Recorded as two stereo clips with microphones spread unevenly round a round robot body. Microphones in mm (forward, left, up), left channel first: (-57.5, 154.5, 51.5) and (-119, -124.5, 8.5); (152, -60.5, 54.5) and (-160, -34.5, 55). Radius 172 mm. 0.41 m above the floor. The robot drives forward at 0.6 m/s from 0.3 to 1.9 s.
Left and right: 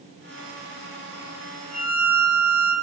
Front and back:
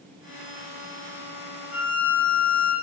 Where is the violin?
90° right, 7.5 m.